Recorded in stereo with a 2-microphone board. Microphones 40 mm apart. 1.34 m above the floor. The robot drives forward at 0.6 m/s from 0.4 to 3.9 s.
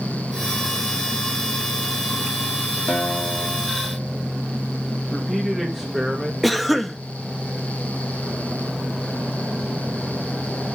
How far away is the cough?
About 1.0 m.